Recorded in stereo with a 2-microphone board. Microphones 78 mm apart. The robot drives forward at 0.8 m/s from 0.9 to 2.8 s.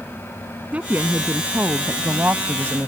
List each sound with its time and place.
0.7 s a woman speaking: 20° right (ahead or behind); by 2.9 s 35° right (ahead or behind)